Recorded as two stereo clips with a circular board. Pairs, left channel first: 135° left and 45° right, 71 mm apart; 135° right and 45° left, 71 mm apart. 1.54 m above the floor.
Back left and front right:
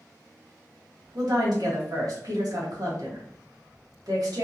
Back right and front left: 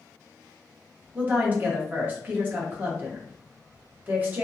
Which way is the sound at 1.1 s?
15° right.